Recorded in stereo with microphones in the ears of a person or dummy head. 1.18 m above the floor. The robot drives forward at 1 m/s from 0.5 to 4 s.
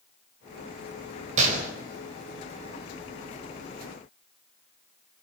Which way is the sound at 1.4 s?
45° right (ahead or behind).